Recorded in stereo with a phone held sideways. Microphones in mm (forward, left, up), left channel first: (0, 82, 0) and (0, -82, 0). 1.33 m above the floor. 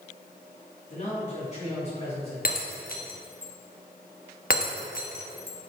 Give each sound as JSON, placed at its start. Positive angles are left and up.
{"t": 0.9, "sound": "a man speaking", "side_deg": 45, "distance_m": 3.5}
{"t": 2.5, "sound": "breaking glass", "side_deg": 65, "distance_m": 1.1}